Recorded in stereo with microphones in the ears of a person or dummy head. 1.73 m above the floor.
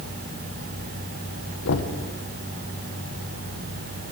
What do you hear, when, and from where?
1.6 s knocking: 65° left (ahead or behind), 1.1 m